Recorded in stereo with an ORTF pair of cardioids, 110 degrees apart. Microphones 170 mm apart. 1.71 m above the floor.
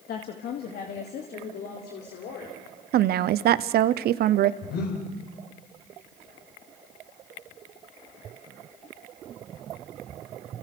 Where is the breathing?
65° left, 6 m.